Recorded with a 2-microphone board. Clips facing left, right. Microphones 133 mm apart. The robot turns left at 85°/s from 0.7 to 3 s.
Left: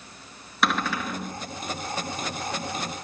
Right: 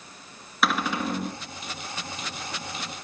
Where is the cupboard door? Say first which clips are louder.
Right 1 dB; straight ahead, 2 m; by 1.4 s 60° right, 2 m.